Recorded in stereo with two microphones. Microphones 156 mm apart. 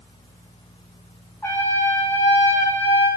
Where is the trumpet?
15° left (ahead or behind), 1.6 m.